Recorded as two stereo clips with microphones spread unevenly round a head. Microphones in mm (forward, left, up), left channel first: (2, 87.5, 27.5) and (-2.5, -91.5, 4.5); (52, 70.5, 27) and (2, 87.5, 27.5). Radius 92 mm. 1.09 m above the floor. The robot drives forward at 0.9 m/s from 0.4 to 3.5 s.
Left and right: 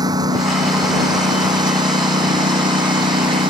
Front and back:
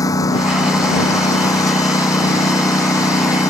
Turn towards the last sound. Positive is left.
turn(degrees=-25)